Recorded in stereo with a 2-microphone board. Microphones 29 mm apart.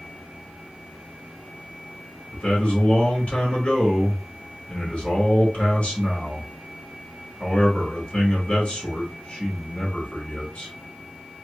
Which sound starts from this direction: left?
A man speaking, at 2.3 s.